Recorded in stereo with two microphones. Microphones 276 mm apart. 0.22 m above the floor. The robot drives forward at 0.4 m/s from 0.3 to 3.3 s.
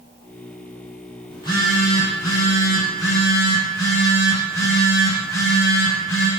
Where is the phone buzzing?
15° left (ahead or behind), 1.1 m; by 6.3 s 10° left (ahead or behind), 1.8 m.